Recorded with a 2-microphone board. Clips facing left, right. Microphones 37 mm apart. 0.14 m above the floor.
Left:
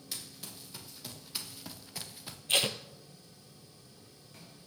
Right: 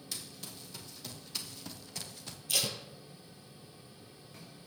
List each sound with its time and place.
0.1 s running footsteps: 10° left (ahead or behind), 4 m; by 2.4 s 15° left (ahead or behind), 1.4 m
2.5 s tape being pulled: 40° left (ahead or behind), 1.0 m